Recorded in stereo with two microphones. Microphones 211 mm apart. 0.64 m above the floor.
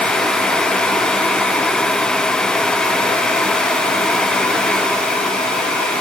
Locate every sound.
Only background noise.